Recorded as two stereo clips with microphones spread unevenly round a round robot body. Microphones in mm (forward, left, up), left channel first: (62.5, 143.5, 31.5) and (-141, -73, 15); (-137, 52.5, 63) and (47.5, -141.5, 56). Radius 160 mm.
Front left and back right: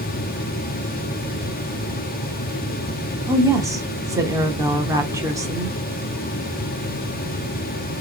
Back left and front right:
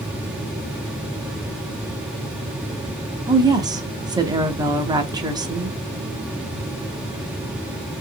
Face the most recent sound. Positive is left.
turn(degrees=-85)